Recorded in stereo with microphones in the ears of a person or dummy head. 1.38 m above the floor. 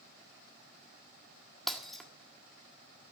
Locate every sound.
1.7 s breaking glass: centre (ahead or behind), 1.7 m